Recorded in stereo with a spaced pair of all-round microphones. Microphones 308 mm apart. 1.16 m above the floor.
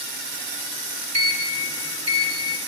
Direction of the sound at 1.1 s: 50° right (ahead or behind).